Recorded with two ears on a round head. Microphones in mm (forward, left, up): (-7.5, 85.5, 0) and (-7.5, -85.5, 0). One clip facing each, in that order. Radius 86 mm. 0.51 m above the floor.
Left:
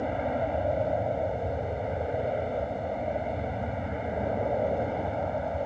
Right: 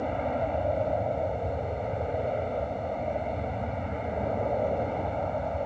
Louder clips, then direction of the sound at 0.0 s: Even; 5° left (ahead or behind).